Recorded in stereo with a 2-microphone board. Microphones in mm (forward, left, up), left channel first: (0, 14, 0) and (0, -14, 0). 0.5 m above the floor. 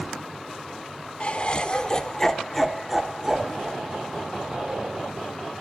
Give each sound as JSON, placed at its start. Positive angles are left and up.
{"t": 1.2, "sound": "laughter", "side_deg": 45, "distance_m": 1.3}